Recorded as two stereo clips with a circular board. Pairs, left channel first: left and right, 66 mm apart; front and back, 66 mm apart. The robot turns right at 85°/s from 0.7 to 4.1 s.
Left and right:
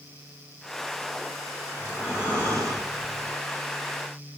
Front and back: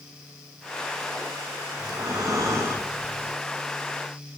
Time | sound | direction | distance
1.8 | breathing | 160° left | 8 m